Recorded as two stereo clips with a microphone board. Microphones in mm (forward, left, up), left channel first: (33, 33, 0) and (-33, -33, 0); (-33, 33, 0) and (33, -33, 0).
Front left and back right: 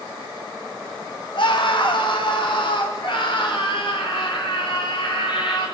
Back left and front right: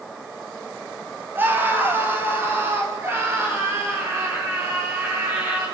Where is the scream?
20° left, 4 m; by 5.7 s 15° left, 10.5 m.